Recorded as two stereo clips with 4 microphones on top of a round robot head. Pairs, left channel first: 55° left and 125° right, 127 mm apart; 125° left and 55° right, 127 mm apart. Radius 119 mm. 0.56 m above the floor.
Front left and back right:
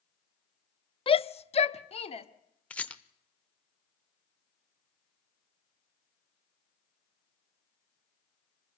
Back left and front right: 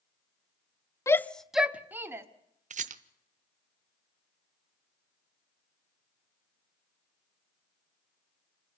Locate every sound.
1.1 s a shout: 65° left, 0.8 m; by 2.3 s 15° left, 1.7 m
2.7 s a rattle: 25° right, 0.9 m